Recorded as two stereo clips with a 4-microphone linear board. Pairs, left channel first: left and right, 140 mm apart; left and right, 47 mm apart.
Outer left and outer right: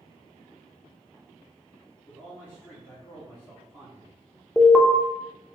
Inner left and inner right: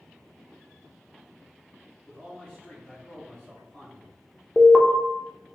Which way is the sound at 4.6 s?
Centre (ahead or behind).